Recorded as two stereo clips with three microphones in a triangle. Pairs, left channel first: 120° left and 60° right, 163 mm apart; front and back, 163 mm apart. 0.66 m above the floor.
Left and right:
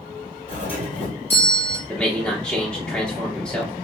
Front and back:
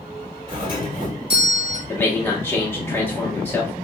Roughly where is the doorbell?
Behind left.